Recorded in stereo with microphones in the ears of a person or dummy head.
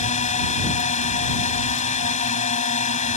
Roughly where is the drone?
Left.